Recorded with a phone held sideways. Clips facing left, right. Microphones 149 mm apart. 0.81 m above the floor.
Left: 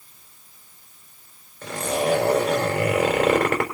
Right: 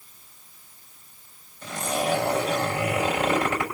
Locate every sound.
1.6 s a zipper: 75° left (ahead or behind), 4 m